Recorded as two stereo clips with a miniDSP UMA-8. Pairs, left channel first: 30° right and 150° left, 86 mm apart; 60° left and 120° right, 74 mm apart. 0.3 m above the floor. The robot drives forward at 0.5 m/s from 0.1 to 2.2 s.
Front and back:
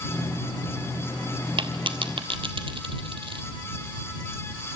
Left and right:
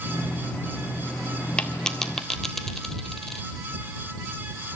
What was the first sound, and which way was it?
A dropped coin, 135° left.